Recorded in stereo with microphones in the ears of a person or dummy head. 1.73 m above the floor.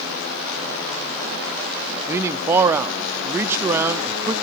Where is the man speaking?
15° right (ahead or behind), 0.6 m.